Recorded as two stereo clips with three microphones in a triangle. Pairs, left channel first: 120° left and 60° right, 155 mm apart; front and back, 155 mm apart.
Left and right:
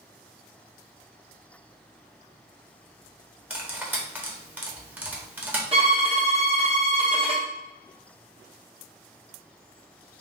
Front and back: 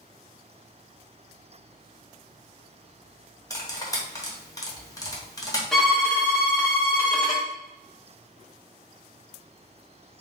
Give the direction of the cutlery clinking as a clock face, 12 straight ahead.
12 o'clock.